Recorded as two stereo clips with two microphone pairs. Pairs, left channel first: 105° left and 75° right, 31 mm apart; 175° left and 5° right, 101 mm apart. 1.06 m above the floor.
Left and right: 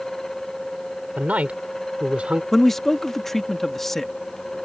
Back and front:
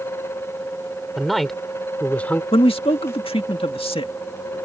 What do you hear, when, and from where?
1.2 s a man speaking: 95° right; by 2.4 s 115° right
2.5 s a man speaking: straight behind